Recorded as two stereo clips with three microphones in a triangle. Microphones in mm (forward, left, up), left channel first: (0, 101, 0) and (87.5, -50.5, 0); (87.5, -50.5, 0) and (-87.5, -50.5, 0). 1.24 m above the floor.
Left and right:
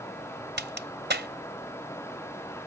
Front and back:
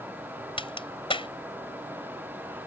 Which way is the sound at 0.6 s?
60° right.